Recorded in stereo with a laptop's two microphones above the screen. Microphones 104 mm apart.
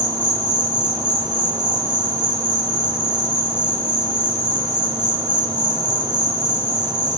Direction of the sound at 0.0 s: 45° right (ahead or behind).